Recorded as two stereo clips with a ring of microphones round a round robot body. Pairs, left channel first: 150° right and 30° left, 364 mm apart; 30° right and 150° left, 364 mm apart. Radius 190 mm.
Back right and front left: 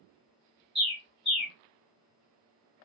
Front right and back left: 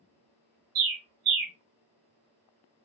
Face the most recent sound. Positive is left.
turn(degrees=120)